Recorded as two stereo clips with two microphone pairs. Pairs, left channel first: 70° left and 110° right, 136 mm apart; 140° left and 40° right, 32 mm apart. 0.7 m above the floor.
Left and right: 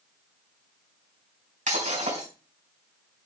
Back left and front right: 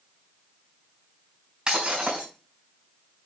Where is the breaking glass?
100° right, 3.5 m.